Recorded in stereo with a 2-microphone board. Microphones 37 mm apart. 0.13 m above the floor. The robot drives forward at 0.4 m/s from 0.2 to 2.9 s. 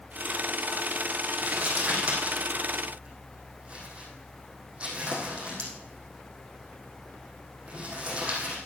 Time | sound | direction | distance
1.4 | crumpling | 35° right (ahead or behind) | 4 m